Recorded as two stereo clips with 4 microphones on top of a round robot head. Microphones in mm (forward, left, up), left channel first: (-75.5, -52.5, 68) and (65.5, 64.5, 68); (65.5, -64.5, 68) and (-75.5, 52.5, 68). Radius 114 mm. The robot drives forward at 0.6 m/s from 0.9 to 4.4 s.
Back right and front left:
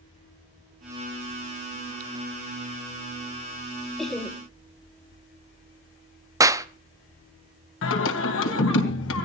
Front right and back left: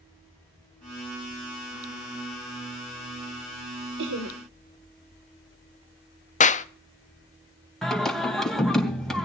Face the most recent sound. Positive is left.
turn(degrees=-125)